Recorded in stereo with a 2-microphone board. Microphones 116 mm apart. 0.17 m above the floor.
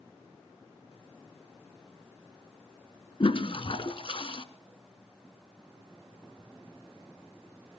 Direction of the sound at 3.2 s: 50° left (ahead or behind).